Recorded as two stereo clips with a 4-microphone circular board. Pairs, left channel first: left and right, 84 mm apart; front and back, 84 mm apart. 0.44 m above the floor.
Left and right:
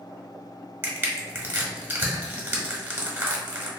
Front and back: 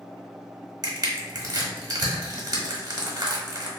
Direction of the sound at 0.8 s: 150° right.